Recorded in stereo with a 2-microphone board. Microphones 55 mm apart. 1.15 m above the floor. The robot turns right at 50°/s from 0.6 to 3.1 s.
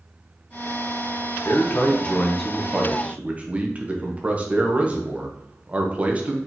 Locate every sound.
1.4 s a man speaking: 125° left, 0.9 m; by 6.4 s 150° right, 0.9 m